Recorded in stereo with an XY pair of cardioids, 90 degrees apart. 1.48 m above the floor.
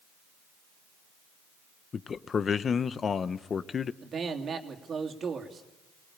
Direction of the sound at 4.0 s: 55° right.